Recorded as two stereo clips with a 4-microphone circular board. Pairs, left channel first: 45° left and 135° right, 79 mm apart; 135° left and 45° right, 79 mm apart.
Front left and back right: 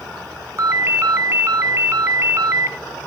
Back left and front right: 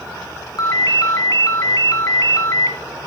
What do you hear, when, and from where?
0.6 s a ringtone: 175° left, 1.2 m